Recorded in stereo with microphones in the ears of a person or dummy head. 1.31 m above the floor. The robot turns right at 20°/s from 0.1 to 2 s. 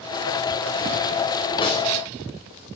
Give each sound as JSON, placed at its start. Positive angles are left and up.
{"t": 1.6, "sound": "a snare drum", "side_deg": 30, "distance_m": 9.0}